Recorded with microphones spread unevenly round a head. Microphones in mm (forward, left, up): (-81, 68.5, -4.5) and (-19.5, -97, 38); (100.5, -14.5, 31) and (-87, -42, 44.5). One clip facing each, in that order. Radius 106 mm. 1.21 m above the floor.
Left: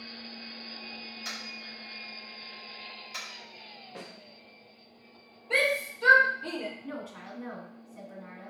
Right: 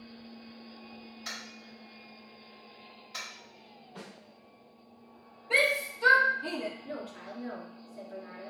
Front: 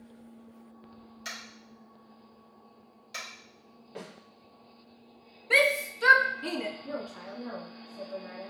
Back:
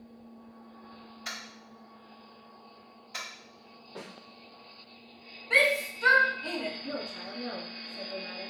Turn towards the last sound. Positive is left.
turn(degrees=115)